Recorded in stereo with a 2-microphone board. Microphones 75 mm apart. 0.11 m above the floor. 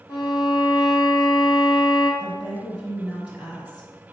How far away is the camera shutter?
I don't hear a camera shutter.